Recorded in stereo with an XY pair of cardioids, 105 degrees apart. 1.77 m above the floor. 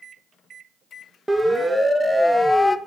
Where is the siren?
15° right, 2.5 m; by 2.8 s 20° left, 1.0 m.